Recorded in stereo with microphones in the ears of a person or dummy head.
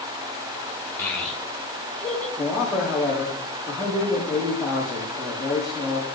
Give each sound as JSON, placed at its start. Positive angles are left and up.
{"t": 1.0, "sound": "a child speaking", "side_deg": 10, "distance_m": 2.5}
{"t": 2.4, "sound": "a man speaking", "side_deg": 5, "distance_m": 3.5}